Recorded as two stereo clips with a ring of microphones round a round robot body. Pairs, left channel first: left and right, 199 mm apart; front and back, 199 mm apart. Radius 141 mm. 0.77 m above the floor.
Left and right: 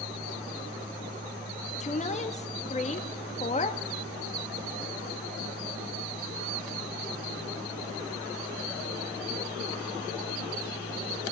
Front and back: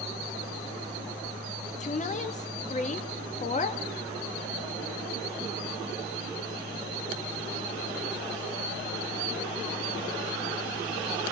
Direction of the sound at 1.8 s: 45° left.